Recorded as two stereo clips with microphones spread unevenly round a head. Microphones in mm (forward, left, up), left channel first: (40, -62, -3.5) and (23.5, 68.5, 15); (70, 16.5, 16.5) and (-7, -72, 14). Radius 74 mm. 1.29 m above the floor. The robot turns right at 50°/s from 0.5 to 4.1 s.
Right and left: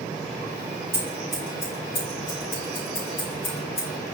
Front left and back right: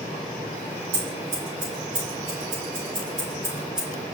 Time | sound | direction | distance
0.9 | scissors | 170° left | 3.5 m